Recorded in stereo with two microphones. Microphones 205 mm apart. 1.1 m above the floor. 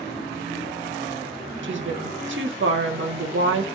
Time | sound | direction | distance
1.6 | a woman speaking | 70° right (ahead or behind) | 1.0 m